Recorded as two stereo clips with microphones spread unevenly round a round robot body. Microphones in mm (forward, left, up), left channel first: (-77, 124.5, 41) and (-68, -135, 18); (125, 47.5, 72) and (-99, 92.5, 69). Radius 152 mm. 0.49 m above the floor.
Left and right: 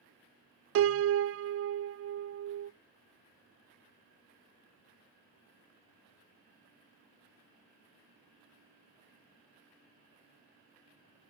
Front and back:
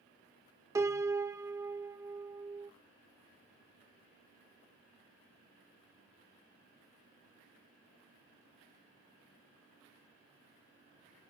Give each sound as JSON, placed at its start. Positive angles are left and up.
{"t": 0.8, "sound": "a piano", "azimuth_deg": -115, "distance_m": 0.5}